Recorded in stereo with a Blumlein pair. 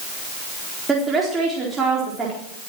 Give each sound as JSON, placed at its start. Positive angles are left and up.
{"t": 0.9, "sound": "a woman speaking", "azimuth_deg": -10, "distance_m": 4.0}